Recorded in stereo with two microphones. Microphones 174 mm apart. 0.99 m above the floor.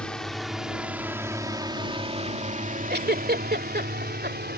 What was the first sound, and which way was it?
A drone, 5° left (ahead or behind).